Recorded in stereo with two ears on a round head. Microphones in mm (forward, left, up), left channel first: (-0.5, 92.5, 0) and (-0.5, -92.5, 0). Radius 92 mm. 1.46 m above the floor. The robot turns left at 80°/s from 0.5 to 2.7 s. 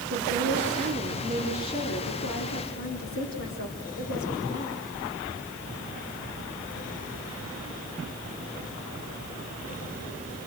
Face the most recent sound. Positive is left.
turn(degrees=70)